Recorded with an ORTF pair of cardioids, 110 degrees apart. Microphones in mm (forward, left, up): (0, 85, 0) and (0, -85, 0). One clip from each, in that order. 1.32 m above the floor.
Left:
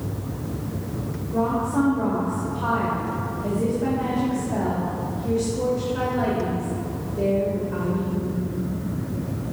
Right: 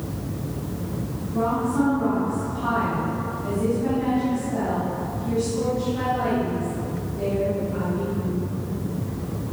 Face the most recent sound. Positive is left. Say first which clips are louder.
# even
turn(degrees=50)